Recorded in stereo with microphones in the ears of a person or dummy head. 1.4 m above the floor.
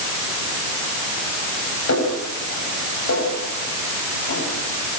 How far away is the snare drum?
About 9 m.